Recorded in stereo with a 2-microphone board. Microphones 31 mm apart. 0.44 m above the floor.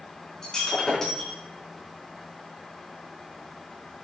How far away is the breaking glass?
About 4 m.